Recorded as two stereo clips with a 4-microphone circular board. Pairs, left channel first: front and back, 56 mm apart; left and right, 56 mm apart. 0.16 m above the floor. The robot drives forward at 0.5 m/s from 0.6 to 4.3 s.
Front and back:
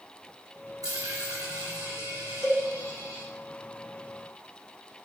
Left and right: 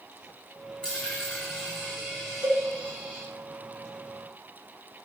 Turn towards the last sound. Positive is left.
turn(degrees=-135)